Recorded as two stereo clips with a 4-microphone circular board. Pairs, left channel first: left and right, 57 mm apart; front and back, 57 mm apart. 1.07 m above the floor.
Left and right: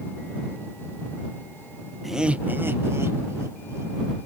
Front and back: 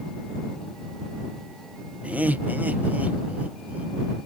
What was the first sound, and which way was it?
Laughter, 175° left.